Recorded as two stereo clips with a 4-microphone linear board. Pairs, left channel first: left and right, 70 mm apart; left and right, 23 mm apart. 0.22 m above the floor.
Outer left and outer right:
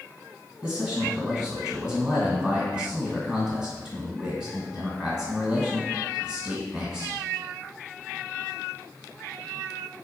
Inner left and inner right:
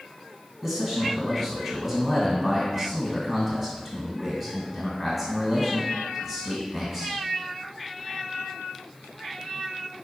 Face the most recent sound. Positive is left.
turn(degrees=-20)  # may be behind; listen again after turning